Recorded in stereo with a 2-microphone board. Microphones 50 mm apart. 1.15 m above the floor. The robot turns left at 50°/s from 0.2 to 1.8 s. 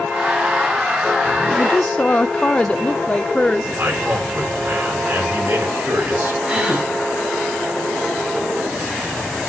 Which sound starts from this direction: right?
A man speaking, at 3.8 s.